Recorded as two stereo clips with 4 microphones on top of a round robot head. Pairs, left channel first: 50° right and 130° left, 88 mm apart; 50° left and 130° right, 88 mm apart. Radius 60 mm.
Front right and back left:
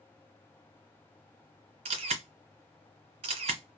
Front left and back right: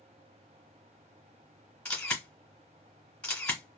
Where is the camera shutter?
130° left, 1.9 m.